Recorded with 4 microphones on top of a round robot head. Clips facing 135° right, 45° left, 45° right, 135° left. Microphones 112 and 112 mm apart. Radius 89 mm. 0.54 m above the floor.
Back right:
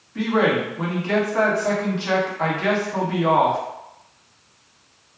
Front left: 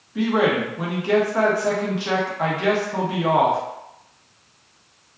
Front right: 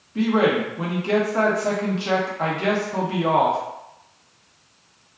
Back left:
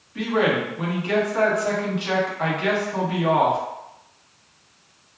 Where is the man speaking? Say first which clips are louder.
Even, front right 2 dB; 25° right, 0.9 m.